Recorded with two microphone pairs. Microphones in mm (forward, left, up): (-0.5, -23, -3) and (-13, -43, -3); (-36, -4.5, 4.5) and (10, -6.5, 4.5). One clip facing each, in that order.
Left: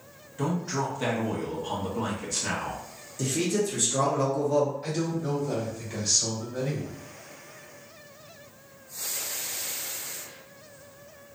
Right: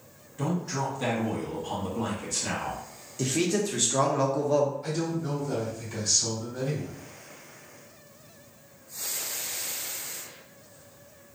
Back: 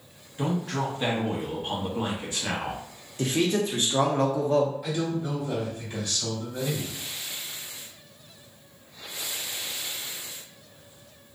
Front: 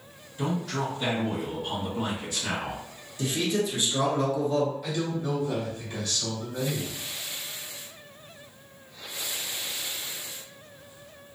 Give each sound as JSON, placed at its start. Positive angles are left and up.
{"t": 0.4, "sound": "a man speaking", "azimuth_deg": 140, "distance_m": 0.9}
{"t": 3.2, "sound": "a man speaking", "azimuth_deg": -165, "distance_m": 0.7}
{"t": 4.8, "sound": "a man speaking", "azimuth_deg": 95, "distance_m": 1.4}